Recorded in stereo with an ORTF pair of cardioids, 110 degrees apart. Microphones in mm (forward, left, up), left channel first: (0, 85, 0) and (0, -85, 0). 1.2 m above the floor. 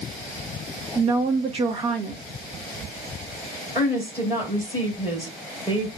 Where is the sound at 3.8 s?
15° right, 4 m.